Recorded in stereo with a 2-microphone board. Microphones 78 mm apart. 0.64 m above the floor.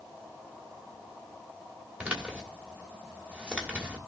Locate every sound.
2.0 s a man speaking: 15° right (ahead or behind), 3 m